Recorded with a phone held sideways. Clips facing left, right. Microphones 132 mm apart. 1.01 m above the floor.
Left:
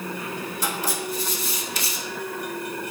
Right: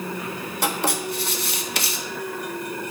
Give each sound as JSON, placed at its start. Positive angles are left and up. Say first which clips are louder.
{"t": 0.6, "sound": "writing", "louder": "right 5 dB", "side_deg": -70, "distance_m": 1.3}